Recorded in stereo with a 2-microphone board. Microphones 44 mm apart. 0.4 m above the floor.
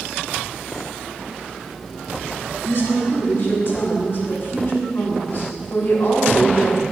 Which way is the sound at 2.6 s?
45° left (ahead or behind).